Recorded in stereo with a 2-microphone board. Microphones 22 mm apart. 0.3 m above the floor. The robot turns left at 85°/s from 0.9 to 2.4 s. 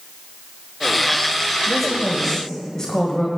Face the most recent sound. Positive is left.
turn(degrees=135)